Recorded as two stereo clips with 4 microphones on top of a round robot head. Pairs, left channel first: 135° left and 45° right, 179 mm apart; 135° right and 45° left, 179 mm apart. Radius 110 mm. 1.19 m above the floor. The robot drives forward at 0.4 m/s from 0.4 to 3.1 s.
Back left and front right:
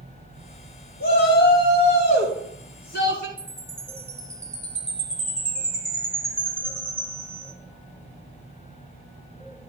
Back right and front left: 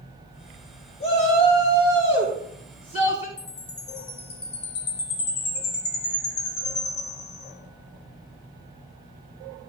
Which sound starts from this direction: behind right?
A chime, at 3.4 s.